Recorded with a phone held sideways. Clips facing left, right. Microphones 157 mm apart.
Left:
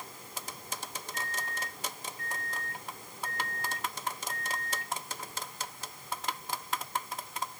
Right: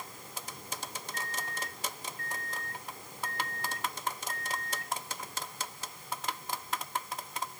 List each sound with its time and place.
1.1 s a microwave: 5° left (ahead or behind), 1.0 m